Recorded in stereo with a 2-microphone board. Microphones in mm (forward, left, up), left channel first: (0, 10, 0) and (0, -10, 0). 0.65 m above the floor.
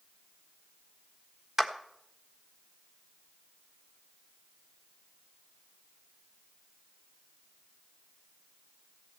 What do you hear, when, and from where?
1.6 s a clap: 15° right (ahead or behind), 1.3 m